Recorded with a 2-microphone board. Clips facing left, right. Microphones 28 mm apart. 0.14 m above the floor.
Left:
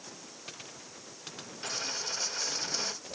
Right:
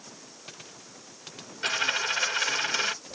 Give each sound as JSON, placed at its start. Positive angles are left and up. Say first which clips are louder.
{"t": 1.6, "sound": "a dropped coin", "louder": "right 10 dB", "side_deg": -85}